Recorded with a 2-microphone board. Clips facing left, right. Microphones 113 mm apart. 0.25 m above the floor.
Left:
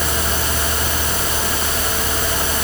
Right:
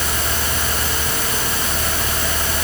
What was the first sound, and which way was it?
Only background noise.